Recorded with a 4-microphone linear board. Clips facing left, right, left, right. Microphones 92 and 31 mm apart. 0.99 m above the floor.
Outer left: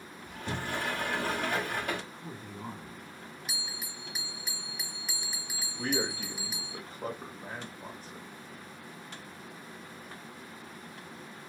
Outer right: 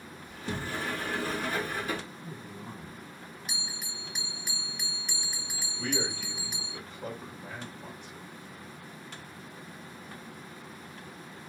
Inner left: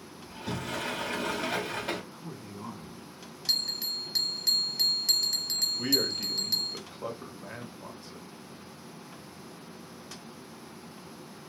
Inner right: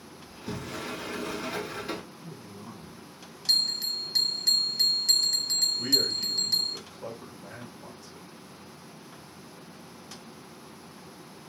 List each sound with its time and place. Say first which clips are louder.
0.3 s a sliding door: even, inner left 2 dB; 65° left (ahead or behind), 2 m
2.1 s a man speaking: even, inner left 1 dB; 70° left (ahead or behind), 2.5 m
3.5 s a bell: outer right 2 dB, inner right 4 dB; centre (ahead or behind), 1.0 m
5.8 s a man speaking: outer left 1 dB, inner right 2 dB; 40° left (ahead or behind), 1.3 m